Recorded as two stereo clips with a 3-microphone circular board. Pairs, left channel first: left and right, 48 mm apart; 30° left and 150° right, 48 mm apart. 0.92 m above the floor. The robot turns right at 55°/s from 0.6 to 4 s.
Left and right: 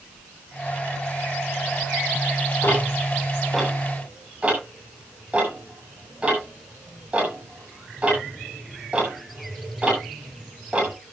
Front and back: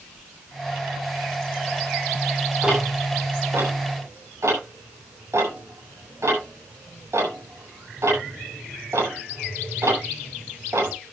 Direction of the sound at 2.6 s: 130° left.